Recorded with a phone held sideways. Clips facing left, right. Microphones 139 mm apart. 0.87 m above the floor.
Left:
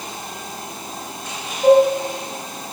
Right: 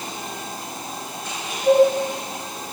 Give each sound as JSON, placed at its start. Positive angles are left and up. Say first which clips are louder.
{"t": 1.6, "sound": "dishes clattering", "louder": "left 3 dB", "side_deg": 80, "distance_m": 6.0}